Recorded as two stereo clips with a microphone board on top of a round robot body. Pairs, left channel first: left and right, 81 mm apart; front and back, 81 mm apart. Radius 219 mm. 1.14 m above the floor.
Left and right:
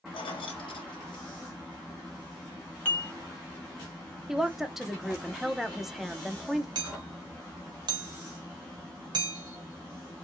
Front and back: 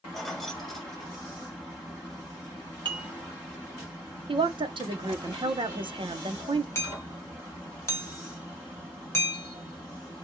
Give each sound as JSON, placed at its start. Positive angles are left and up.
{"t": 0.1, "sound": "keys jangling", "azimuth_deg": 90, "distance_m": 0.6}
{"t": 2.9, "sound": "dishes clattering", "azimuth_deg": 155, "distance_m": 1.5}
{"t": 4.3, "sound": "a woman speaking", "azimuth_deg": -175, "distance_m": 0.8}
{"t": 6.8, "sound": "hammering", "azimuth_deg": -55, "distance_m": 0.8}